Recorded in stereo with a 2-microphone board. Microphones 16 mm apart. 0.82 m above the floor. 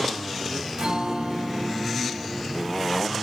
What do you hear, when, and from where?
0.8 s a guitar: 70° right (ahead or behind), 1.2 m